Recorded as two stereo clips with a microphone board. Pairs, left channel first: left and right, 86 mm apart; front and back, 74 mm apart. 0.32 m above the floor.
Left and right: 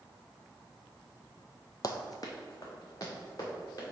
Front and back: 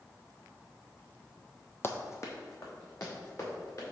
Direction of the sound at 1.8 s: 55° left.